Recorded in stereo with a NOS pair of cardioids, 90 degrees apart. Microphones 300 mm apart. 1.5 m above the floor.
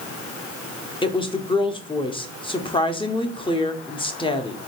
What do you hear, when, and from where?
1.0 s a woman speaking: 15° left, 0.9 m